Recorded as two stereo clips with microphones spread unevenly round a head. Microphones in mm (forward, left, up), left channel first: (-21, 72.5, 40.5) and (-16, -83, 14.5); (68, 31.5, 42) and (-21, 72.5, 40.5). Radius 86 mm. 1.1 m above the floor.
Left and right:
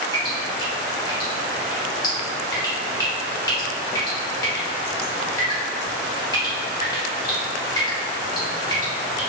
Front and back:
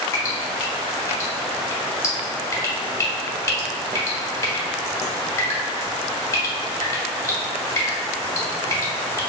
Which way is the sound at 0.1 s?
30° left.